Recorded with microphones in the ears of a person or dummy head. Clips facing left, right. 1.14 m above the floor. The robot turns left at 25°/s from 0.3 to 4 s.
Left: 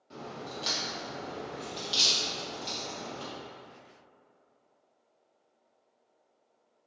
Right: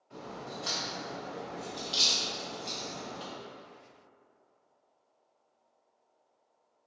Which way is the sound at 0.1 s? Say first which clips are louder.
Left 1 dB; 60° left (ahead or behind).